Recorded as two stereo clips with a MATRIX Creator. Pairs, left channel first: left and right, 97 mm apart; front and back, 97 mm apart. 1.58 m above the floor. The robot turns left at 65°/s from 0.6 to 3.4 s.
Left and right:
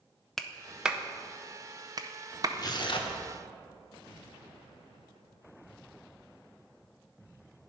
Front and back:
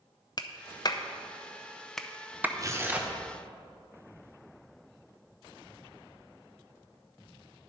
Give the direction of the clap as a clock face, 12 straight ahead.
12 o'clock.